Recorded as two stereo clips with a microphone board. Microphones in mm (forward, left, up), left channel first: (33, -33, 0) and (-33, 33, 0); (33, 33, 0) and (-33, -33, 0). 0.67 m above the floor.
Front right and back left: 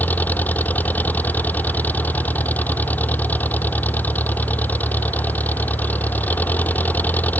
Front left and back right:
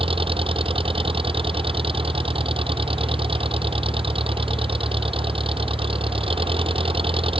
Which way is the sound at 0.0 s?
115° right.